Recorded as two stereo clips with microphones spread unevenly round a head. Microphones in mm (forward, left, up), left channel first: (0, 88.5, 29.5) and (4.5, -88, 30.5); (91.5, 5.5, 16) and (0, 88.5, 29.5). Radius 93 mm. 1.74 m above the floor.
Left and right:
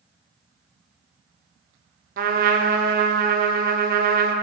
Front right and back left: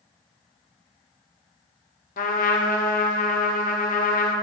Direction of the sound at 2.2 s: 45° right.